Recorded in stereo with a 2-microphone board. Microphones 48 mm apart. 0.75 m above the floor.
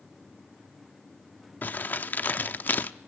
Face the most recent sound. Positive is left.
turn(degrees=40)  # may be behind; listen again after turning